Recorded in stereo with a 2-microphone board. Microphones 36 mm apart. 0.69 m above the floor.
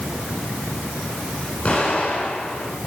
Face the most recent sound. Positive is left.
turn(degrees=35)  # may be behind; listen again after turning